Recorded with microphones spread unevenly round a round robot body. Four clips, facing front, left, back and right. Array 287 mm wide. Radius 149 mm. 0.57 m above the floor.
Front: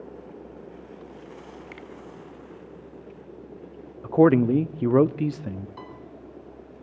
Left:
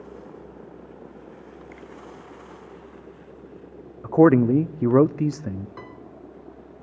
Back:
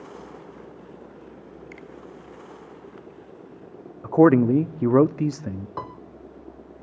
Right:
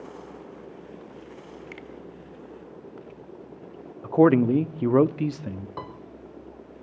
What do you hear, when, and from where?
1.7 s a finger snap: 70° right, 1.8 m
4.0 s a man speaking: 145° left, 0.6 m
5.8 s a piano: 155° right, 3 m